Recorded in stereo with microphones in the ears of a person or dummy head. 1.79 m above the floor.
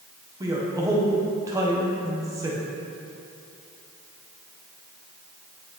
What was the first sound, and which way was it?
A man speaking, 15° right (ahead or behind).